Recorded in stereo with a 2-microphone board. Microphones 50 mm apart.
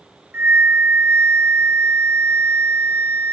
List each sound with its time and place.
0.3 s a flute: 55° right (ahead or behind), 0.6 m